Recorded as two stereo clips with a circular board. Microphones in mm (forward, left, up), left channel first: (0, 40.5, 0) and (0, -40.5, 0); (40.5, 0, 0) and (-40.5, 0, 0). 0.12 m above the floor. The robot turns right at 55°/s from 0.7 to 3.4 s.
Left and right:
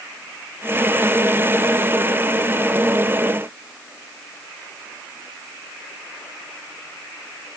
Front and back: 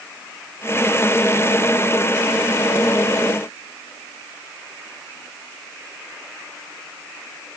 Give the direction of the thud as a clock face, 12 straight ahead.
I don't hear a thud.